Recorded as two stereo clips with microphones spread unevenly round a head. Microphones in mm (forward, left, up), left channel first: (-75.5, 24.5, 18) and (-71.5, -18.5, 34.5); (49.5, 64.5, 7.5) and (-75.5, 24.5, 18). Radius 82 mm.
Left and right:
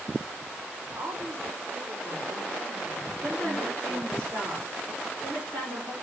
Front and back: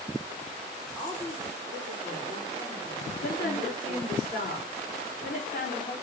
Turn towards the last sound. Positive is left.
turn(degrees=-30)